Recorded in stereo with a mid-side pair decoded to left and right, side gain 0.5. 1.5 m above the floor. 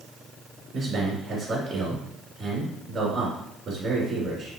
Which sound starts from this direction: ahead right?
A man speaking, at 0.7 s.